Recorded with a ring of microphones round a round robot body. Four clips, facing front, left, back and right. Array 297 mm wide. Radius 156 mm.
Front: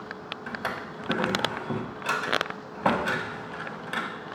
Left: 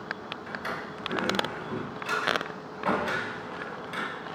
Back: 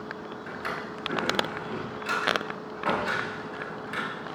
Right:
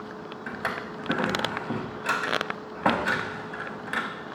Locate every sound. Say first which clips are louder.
0.5 s a drawer: right 4 dB, front 2 dB; 45° right, 0.9 m